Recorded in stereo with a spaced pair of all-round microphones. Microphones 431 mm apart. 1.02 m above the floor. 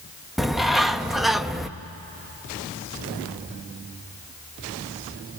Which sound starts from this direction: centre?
A bird, at 0.4 s.